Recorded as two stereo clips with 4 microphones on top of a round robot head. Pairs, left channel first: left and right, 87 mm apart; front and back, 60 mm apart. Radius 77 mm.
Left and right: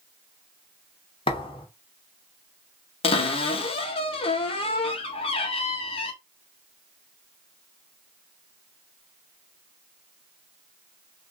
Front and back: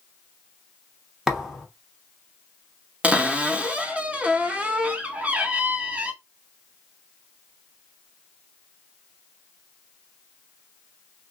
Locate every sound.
1.3 s a thud: 95° left, 1.0 m
3.0 s a cupboard door: 105° left, 0.8 m